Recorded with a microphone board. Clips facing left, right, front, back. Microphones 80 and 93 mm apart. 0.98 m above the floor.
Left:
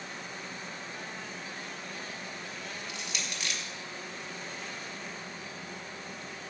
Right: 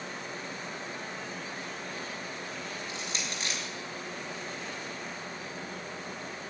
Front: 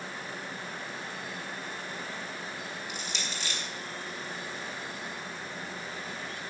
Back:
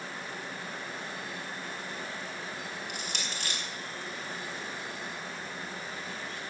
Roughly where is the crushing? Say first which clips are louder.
Right 2 dB, even; behind right.